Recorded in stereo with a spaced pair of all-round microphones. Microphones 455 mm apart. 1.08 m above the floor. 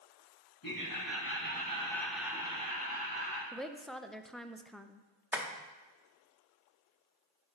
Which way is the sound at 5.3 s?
5° right (ahead or behind).